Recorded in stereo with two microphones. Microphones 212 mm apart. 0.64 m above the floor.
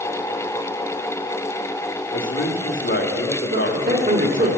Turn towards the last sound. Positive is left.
turn(degrees=-45)  # may be behind; listen again after turning